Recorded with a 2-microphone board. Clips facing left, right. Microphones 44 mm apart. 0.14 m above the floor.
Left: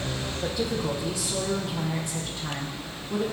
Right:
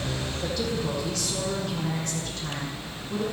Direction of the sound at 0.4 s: 20° left (ahead or behind).